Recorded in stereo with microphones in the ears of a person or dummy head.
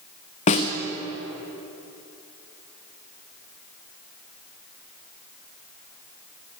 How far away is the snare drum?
About 1.0 m.